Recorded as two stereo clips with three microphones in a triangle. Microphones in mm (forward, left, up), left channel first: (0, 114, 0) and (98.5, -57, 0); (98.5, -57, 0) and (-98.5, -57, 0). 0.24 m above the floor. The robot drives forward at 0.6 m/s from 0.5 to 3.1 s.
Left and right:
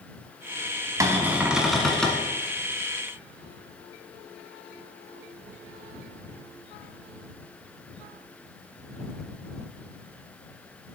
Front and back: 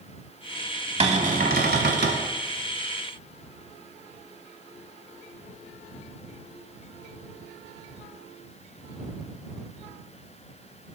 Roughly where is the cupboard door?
Behind right.